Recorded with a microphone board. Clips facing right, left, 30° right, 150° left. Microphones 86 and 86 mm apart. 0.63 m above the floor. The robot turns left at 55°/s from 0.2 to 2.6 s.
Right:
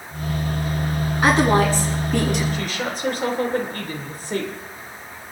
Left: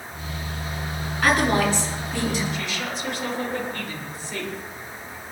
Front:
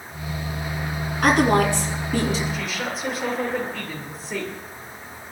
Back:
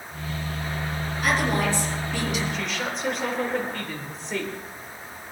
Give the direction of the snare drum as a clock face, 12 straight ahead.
I don't hear a snare drum.